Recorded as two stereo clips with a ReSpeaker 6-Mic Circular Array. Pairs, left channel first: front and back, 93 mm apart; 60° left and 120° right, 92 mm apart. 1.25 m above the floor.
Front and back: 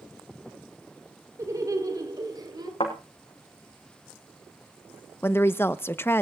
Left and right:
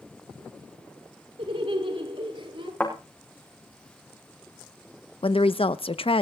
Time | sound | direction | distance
1.4 | laughter | 125° right | 3 m
2.8 | a thud | 15° right | 6 m
5.2 | a woman speaking | 65° left | 0.8 m